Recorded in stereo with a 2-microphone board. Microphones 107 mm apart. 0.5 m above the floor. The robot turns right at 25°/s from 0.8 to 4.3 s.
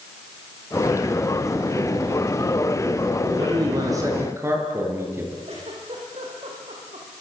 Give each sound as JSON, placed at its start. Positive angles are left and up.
{"t": 3.2, "sound": "a man speaking", "side_deg": -50, "distance_m": 7.5}
{"t": 5.5, "sound": "a giggle", "side_deg": -70, "distance_m": 8.0}